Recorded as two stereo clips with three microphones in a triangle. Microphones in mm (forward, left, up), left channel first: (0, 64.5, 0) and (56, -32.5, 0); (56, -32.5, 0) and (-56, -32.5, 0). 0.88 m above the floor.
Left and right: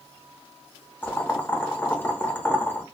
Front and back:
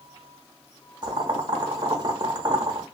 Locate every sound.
1.0 s boiling: straight behind, 0.9 m